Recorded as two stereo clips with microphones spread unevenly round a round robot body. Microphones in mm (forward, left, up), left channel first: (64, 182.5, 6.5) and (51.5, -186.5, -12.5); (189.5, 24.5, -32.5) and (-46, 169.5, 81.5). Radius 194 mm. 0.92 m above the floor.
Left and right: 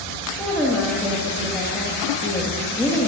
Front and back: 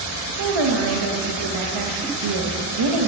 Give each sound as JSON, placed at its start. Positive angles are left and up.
{"t": 0.4, "sound": "a woman speaking", "azimuth_deg": 175, "distance_m": 0.8}